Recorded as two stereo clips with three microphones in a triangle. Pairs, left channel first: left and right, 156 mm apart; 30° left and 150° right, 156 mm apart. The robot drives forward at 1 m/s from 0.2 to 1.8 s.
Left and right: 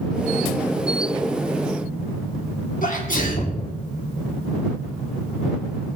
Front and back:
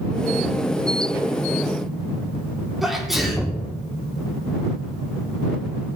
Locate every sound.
2.8 s a sneeze: 120° left, 2.0 m